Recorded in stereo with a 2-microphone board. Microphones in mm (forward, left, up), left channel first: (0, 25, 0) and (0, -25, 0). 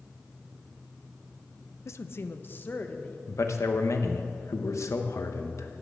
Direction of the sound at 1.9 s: 65° left (ahead or behind).